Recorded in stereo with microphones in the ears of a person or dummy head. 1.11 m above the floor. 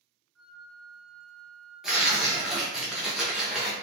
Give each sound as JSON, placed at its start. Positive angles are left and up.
{"t": 0.3, "sound": "a flute", "side_deg": -5, "distance_m": 1.3}
{"t": 1.8, "sound": "tearing paper", "side_deg": 0, "distance_m": 0.6}